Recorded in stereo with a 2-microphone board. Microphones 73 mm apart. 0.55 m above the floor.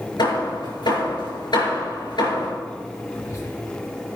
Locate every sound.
0.2 s hammering: 85° left, 5 m
3.1 s whispering: 45° left (ahead or behind), 6 m